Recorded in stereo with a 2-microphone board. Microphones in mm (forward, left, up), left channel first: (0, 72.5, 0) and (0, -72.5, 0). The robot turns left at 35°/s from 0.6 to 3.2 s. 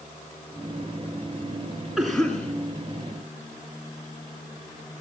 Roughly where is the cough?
Centre.